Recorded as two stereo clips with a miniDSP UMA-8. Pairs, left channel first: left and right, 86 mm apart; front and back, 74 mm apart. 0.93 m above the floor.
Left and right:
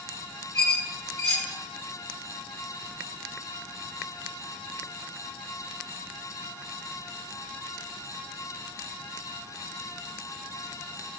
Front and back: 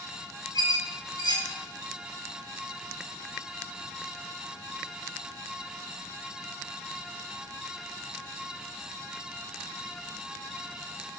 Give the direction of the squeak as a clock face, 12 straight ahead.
12 o'clock.